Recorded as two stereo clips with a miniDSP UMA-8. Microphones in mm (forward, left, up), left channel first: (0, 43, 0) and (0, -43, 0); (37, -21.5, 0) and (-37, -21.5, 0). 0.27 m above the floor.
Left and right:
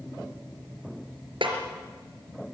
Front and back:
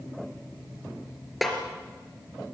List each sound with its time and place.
1.4 s a snare drum: 90° right, 4 m